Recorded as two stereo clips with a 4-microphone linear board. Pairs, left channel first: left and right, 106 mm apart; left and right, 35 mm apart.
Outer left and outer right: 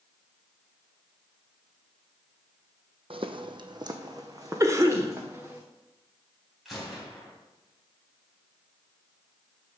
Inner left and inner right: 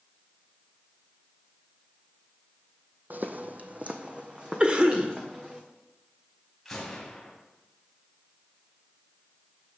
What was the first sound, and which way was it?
Footsteps, 60° right (ahead or behind).